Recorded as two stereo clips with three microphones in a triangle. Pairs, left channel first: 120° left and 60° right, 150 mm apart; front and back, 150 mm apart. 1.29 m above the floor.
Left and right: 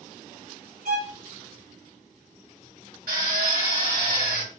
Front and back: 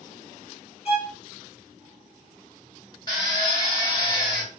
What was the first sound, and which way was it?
A violin, 50° right.